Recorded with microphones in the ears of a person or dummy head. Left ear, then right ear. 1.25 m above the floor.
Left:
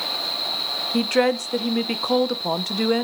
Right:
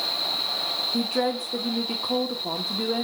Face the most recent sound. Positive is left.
turn(degrees=65)  # may be behind; listen again after turning